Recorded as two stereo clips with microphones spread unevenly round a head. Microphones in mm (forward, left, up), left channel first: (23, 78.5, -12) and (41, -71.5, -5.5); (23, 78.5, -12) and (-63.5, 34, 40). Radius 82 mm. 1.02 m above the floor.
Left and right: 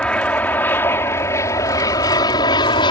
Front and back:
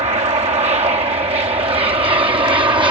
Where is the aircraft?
Straight behind; by 2.9 s 155° left.